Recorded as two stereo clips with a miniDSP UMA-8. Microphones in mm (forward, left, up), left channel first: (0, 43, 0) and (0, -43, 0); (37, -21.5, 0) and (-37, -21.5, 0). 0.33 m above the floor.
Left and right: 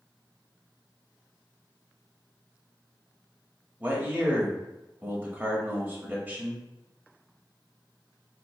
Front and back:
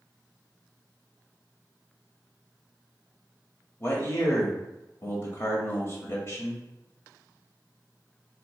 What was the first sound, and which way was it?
A man speaking, 30° right.